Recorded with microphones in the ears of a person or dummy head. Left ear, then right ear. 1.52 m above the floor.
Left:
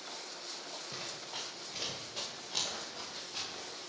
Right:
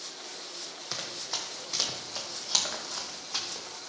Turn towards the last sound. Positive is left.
turn(degrees=-55)  # may be behind; listen again after turning